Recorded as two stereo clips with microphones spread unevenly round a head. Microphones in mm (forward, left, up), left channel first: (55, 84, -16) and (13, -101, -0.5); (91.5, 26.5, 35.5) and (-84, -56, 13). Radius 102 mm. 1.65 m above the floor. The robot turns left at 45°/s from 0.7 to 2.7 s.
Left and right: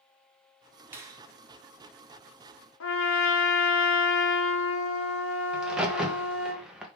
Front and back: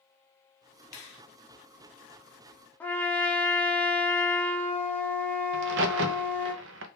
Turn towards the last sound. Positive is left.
turn(degrees=170)